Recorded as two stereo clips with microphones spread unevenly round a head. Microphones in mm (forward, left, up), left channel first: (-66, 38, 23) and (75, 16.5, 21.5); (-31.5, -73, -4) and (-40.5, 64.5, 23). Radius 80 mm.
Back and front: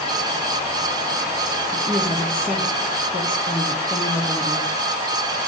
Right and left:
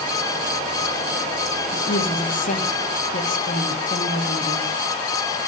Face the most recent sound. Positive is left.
turn(degrees=-105)